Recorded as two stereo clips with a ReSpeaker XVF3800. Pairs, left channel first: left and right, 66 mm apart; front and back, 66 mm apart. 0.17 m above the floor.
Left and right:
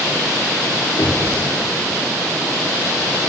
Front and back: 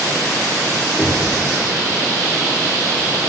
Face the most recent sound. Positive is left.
turn(degrees=100)